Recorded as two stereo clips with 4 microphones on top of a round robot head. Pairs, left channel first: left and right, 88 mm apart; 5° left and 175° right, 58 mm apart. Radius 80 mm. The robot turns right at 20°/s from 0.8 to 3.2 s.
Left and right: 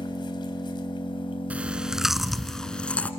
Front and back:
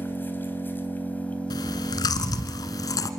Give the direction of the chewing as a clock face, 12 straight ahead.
1 o'clock.